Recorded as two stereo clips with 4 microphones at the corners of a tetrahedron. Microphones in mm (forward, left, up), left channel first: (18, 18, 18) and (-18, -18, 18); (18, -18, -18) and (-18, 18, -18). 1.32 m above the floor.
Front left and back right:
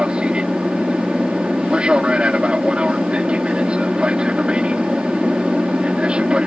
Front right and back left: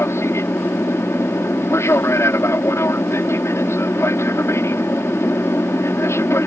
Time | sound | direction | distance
0.0 | an aircraft | 65° right | ?